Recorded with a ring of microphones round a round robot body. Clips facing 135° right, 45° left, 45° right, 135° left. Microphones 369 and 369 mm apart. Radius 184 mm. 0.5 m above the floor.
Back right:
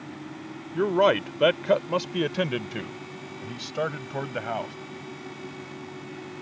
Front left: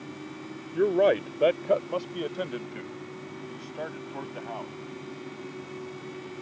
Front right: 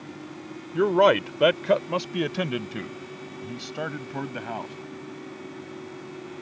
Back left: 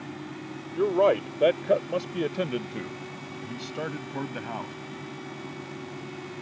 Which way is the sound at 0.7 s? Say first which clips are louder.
Even, front right 2 dB; 75° right.